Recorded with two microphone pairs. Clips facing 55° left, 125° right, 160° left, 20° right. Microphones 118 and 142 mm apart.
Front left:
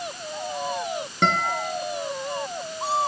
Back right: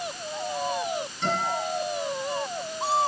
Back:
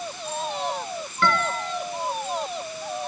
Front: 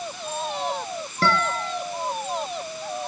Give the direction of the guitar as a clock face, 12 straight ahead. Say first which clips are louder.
Front left 4 dB, front 1 dB; 11 o'clock.